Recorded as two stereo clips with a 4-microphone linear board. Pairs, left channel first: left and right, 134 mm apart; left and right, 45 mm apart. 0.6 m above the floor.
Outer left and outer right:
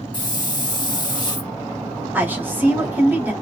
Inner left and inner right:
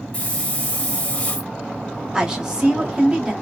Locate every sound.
0.1 s a hiss: 35° left (ahead or behind), 0.6 m
2.1 s a woman speaking: 15° right (ahead or behind), 0.9 m